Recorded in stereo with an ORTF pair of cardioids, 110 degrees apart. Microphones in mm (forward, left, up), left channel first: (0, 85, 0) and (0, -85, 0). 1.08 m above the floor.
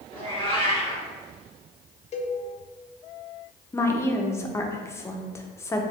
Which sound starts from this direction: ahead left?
A cowbell, at 2.1 s.